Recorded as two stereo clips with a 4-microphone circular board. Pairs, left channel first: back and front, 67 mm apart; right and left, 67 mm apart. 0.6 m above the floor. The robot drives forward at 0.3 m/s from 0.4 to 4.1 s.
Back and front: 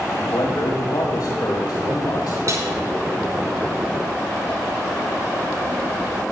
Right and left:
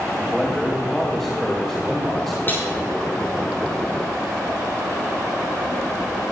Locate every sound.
0.2 s a man speaking: 170° right, 3 m
2.5 s a snare drum: 30° right, 5 m